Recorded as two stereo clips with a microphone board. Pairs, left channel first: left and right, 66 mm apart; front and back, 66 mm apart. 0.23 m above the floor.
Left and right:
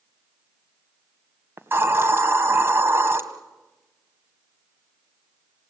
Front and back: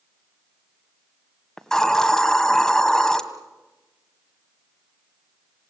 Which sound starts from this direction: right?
A hiss, at 1.6 s.